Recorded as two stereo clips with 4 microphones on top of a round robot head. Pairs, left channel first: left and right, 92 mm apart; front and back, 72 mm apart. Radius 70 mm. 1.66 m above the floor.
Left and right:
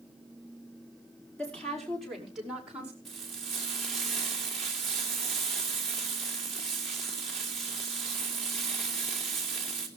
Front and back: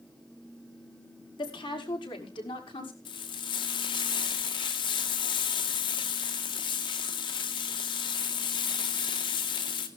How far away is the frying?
About 2 m.